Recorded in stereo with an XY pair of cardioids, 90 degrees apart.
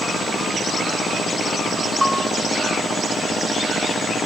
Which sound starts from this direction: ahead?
A bell, at 2.0 s.